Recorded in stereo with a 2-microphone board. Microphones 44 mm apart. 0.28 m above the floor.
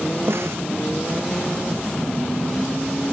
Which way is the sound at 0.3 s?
65° right (ahead or behind).